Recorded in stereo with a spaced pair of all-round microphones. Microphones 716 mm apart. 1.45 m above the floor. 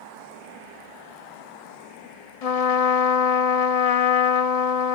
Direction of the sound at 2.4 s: 60° left (ahead or behind).